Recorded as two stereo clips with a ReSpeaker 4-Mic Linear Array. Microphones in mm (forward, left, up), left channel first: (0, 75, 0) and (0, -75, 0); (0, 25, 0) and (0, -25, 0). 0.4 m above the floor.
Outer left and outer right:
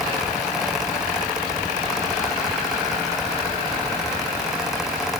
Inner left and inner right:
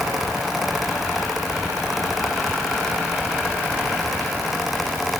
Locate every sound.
Only background noise.